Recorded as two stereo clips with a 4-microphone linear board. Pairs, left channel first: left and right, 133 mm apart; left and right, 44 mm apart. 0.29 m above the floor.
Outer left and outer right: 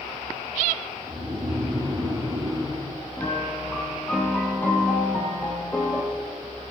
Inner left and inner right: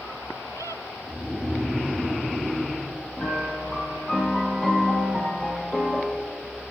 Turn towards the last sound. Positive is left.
turn(degrees=15)  # may be behind; listen again after turning